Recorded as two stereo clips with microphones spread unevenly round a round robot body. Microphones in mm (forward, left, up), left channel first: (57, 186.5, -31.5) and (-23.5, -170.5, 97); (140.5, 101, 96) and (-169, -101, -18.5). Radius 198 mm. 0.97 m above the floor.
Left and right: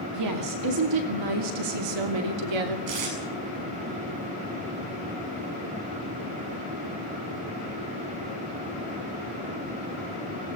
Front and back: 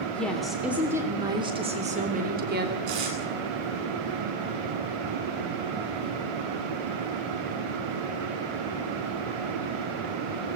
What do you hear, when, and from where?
0.1 s a woman speaking: 55° right, 2.5 m; by 2.8 s 85° right, 2.5 m
2.9 s tape being pulled: 120° right, 8.5 m